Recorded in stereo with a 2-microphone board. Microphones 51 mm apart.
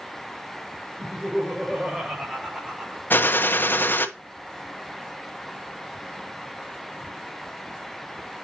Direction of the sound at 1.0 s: 25° right (ahead or behind).